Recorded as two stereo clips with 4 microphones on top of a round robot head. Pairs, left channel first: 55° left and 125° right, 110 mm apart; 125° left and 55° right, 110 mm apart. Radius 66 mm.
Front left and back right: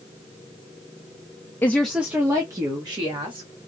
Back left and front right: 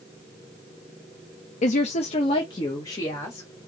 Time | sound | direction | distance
1.6 | a woman speaking | 125° left | 0.6 m